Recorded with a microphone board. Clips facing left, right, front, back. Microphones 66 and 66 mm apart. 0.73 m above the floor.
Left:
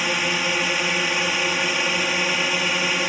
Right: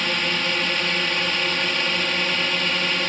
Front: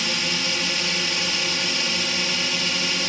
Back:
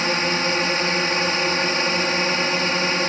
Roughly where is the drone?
Behind.